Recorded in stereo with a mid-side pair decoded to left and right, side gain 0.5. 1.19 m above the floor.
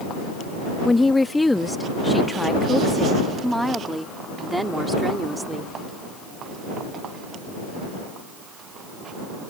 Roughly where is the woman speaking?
Ahead.